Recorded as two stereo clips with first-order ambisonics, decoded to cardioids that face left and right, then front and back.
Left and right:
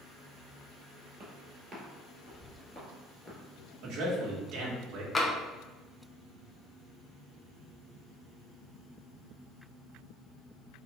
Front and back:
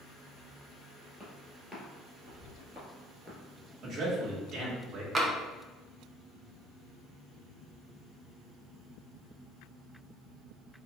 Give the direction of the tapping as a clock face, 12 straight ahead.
7 o'clock.